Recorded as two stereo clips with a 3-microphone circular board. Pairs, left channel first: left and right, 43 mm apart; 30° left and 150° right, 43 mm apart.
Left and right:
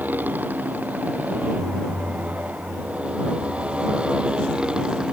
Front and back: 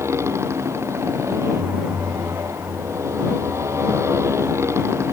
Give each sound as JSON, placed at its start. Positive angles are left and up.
{"t": 0.0, "sound": "a motorcycle", "azimuth_deg": -140}